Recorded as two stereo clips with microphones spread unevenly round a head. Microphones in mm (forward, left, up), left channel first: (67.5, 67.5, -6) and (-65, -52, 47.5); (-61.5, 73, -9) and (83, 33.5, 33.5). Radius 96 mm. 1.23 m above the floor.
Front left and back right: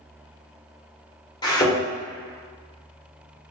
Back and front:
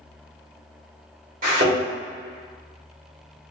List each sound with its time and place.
1.4 s a thud: 35° right, 1.4 m